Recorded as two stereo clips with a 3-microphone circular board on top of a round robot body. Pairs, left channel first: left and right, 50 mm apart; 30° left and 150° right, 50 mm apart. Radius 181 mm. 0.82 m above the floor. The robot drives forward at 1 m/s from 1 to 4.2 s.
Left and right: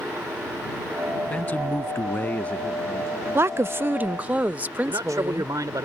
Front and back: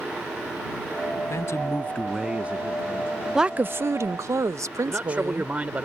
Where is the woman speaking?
70° right; by 5.5 s 150° right.